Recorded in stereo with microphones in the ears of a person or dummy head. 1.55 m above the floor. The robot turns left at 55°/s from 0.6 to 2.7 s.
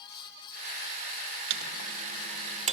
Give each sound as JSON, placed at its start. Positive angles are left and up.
{"t": 1.5, "sound": "a microwave", "side_deg": -50, "distance_m": 0.7}